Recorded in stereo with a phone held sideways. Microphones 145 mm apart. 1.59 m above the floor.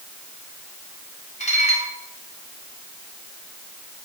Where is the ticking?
I don't hear ticking.